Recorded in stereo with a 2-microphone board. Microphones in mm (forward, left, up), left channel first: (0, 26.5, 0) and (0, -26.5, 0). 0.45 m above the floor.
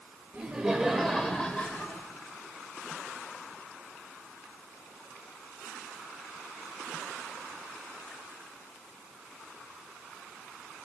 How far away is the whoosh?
No whoosh in this recording.